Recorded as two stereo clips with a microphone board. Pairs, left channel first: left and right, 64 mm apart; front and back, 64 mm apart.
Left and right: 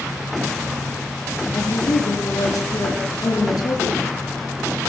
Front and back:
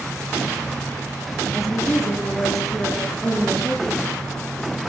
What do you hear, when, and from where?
1.5 s a woman speaking: 95° left, 7.5 m; by 4.0 s 80° left, 7 m